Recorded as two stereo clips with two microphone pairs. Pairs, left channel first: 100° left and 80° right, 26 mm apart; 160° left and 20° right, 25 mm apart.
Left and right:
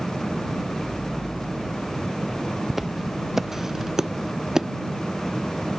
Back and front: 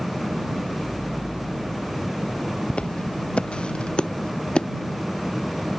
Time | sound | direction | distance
2.7 | footsteps | 160° right | ?